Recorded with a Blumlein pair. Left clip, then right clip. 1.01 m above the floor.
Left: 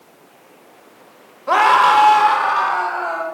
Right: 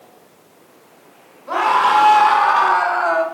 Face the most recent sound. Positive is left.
turn(degrees=-25)